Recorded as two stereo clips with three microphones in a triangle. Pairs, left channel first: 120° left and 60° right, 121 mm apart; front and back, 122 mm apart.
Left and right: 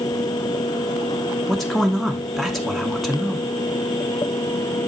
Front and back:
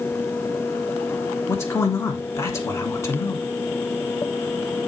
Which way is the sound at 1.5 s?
35° left.